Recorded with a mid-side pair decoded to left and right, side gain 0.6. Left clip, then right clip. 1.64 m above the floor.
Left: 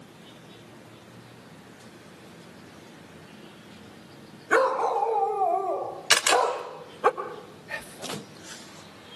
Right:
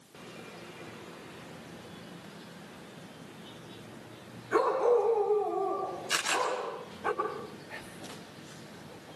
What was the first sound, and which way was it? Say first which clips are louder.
A dog barking: left 3 dB; 65° left.